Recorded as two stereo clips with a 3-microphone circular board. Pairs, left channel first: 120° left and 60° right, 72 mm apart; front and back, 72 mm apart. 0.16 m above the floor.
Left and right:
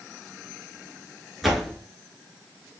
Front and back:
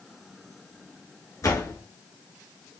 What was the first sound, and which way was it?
A door slam, 30° left.